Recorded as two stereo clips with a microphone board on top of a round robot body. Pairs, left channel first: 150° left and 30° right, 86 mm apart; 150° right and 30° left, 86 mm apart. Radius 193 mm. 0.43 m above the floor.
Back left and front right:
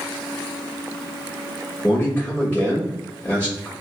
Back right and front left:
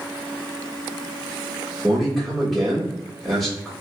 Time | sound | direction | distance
1.8 | a man speaking | 125° left | 1.4 m